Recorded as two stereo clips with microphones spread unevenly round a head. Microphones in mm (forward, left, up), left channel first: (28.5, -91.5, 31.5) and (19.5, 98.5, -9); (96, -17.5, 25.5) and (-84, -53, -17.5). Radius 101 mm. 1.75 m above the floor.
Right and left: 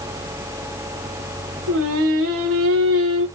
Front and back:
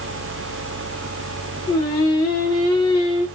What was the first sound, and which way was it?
Singing, 85° left.